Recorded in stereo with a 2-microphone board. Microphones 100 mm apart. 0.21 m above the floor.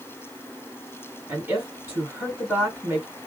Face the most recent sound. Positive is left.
turn(degrees=-20)  # may be behind; listen again after turning